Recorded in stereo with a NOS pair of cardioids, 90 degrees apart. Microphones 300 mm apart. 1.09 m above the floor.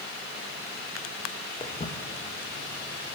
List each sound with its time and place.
1.6 s footsteps: 20° left, 4.5 m; by 3.1 s 30° left, 4 m